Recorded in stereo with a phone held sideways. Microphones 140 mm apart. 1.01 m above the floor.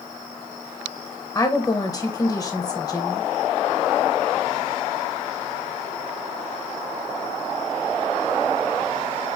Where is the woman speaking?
25° left (ahead or behind), 0.9 m.